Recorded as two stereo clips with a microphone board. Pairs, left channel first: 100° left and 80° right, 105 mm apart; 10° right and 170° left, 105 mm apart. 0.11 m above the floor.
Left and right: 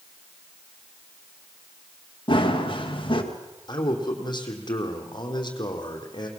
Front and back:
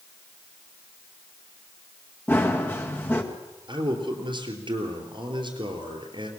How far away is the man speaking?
About 3 m.